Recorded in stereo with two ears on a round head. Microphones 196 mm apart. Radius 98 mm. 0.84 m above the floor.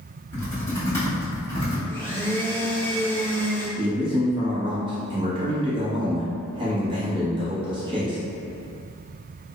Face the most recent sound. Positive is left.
turn(degrees=-25)  # may be behind; listen again after turning